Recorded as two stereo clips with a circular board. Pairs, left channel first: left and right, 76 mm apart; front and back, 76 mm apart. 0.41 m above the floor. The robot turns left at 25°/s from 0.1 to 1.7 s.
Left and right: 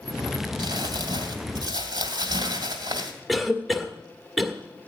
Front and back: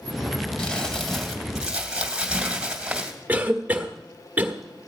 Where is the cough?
Straight behind, 1.3 m.